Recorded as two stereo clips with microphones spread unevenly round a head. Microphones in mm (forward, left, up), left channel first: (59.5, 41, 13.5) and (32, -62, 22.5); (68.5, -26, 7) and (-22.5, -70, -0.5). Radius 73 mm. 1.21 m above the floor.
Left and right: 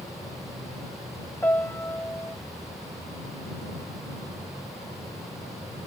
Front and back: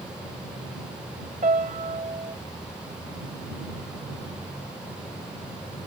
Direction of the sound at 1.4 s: 155° left.